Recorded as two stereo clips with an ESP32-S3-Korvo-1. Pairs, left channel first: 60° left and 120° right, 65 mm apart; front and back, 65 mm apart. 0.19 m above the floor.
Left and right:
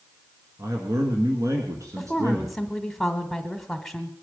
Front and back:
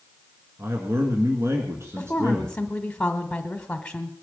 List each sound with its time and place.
0.6 s a man speaking: 140° right, 2.0 m
2.0 s a woman speaking: 20° right, 1.0 m